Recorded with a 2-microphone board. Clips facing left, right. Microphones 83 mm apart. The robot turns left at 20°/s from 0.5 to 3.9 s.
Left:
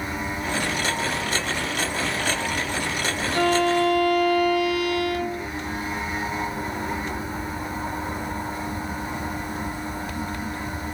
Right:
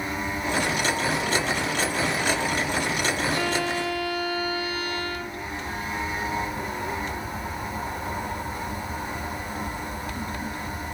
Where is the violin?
55° left (ahead or behind), 0.6 m; by 5.5 s 65° left (ahead or behind), 0.6 m.